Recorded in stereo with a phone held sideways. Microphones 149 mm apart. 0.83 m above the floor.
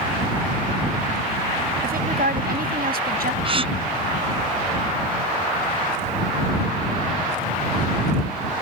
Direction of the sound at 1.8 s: 85° right.